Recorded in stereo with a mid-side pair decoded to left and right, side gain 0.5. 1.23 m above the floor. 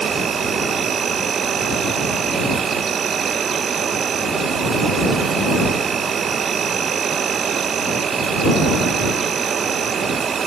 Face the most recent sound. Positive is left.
turn(degrees=-45)